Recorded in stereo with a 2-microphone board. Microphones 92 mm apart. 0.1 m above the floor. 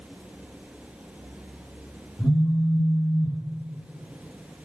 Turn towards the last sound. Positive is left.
turn(degrees=10)  # may be behind; listen again after turning